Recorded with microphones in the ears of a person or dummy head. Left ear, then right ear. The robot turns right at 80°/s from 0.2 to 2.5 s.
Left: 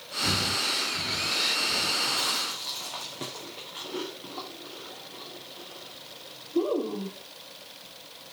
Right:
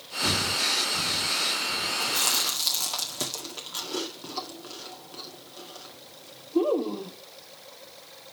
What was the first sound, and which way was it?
Breathing, 75° right (ahead or behind).